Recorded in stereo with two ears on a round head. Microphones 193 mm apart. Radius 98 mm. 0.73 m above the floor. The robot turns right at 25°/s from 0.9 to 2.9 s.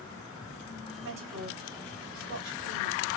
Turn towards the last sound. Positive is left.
turn(degrees=-50)  # may be behind; listen again after turning